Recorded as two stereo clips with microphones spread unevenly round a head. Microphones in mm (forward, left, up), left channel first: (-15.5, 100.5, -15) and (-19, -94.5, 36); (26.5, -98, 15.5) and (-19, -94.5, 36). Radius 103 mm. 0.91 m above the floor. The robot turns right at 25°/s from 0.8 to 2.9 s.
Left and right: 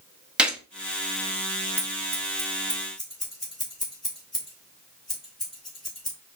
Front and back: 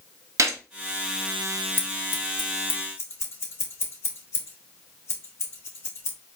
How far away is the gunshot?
About 1.0 m.